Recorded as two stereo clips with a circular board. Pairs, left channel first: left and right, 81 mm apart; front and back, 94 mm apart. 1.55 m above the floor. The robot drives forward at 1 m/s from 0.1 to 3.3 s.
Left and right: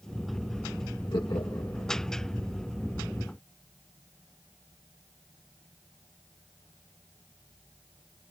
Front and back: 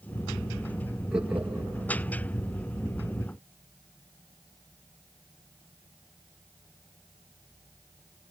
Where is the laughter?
100° left, 2 m; by 1.9 s 120° left, 2.5 m.